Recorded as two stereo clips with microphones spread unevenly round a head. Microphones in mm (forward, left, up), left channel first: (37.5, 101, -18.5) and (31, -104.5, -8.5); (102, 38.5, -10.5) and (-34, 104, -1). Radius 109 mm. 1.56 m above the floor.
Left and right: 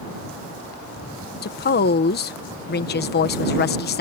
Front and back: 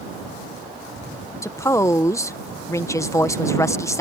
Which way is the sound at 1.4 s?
45° left.